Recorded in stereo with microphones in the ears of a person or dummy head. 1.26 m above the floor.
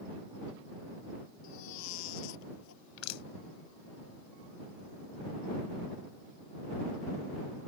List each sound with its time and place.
1.4 s a baby crying: 85° left
3.0 s crushing: 90° left